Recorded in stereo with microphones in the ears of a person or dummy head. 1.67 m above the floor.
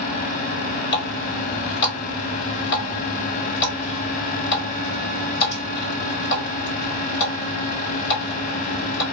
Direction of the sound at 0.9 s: 55° left (ahead or behind).